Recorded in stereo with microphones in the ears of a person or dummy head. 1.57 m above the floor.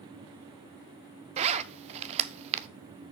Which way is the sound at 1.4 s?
35° right (ahead or behind).